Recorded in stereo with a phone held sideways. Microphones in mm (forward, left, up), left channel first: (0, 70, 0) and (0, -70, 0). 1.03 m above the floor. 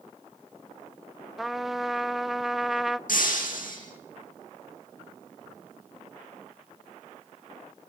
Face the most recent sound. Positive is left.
turn(degrees=80)